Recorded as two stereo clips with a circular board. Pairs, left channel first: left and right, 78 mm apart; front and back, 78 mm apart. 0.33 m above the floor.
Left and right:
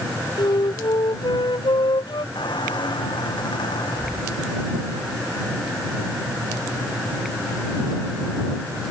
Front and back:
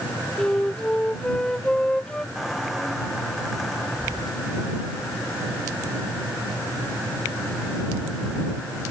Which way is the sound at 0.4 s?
80° left.